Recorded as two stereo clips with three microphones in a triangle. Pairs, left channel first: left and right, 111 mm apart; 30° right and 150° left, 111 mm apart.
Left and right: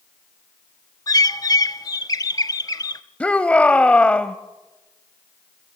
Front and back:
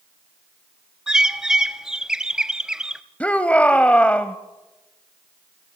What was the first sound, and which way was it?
A bird, 70° left.